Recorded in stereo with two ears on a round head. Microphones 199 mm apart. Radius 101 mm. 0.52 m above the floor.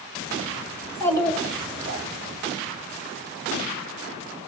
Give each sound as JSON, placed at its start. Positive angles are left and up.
{"t": 0.8, "sound": "a child speaking", "side_deg": 20, "distance_m": 2.0}